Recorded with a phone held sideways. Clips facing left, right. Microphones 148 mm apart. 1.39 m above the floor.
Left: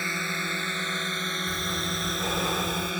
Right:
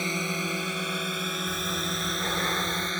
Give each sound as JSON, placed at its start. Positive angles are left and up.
{"t": 0.0, "sound": "a drone", "side_deg": -15}
{"t": 1.5, "sound": "breathing", "side_deg": 10}